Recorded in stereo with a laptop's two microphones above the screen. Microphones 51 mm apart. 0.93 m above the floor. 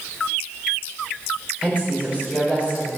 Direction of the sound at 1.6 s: 25° right (ahead or behind).